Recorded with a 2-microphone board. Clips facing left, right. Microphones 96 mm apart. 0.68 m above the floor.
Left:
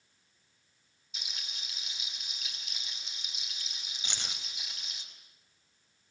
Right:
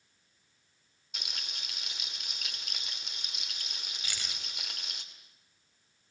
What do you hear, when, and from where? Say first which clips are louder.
1.1 s frying: right 2 dB; 60° right (ahead or behind), 2.5 m
4.0 s keys jangling: left 2 dB; 25° left (ahead or behind), 3 m